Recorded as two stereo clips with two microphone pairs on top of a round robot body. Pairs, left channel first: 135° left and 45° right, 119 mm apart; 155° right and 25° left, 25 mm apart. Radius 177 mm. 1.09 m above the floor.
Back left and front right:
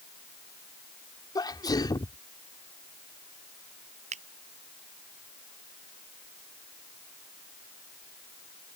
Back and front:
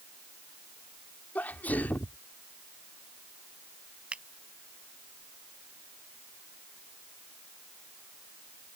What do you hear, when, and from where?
1.4 s a sneeze: 165° right
4.1 s a finger snap: 15° right